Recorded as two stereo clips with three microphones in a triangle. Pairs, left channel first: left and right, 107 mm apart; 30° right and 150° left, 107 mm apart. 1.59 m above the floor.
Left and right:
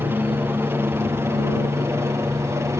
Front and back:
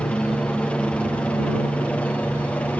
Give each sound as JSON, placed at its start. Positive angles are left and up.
{"t": 0.0, "sound": "a helicopter", "azimuth_deg": -90}